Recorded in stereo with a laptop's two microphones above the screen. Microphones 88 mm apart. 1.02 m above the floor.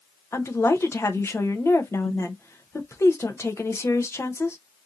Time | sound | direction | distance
0.3 | a woman speaking | 30° left (ahead or behind) | 0.6 m